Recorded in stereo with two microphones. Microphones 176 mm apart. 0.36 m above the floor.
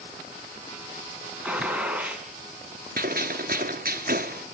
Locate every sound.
1.4 s a gunshot: 10° right (ahead or behind), 3 m
3.0 s a gunshot: 60° right (ahead or behind), 1.6 m